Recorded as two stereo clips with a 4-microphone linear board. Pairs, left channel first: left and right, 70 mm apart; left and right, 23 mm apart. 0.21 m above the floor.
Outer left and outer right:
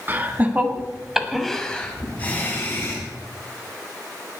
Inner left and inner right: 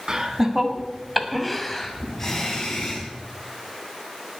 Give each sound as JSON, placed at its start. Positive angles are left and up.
{"t": 0.1, "sound": "laughter", "side_deg": -30, "distance_m": 1.6}